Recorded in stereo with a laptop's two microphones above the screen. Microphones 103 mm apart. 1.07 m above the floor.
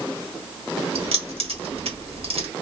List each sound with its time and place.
0.9 s keys jangling: 70° right (ahead or behind), 1.2 m